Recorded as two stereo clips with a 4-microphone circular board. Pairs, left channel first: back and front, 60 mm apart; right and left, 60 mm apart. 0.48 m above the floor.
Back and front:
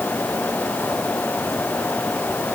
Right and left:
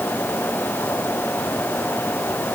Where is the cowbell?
I don't hear a cowbell.